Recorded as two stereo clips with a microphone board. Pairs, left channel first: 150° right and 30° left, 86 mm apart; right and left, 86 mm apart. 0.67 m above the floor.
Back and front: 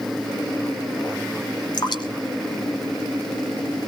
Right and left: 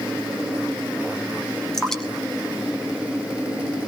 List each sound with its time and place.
1.7 s dripping: 175° right, 1.9 m